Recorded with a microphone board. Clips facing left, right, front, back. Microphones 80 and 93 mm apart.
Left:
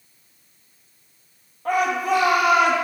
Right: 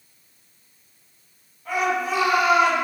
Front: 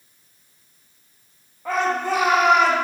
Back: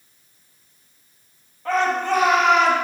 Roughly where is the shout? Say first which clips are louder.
Left 3 dB, back 2 dB; left.